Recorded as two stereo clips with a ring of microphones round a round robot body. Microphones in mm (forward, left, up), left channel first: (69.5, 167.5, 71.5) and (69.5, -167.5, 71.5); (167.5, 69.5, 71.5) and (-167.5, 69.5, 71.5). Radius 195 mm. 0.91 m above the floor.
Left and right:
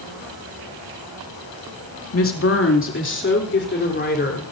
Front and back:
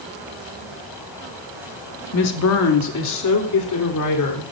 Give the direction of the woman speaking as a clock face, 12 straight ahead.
11 o'clock.